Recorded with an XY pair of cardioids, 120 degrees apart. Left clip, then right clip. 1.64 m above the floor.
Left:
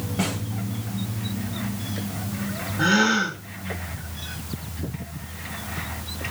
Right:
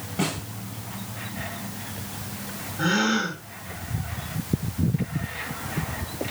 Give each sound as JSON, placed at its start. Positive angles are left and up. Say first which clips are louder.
{"t": 0.2, "sound": "a snare drum", "louder": "even", "azimuth_deg": 5, "distance_m": 9.5}
{"t": 2.8, "sound": "a gasp", "louder": "left 4 dB", "azimuth_deg": 20, "distance_m": 4.5}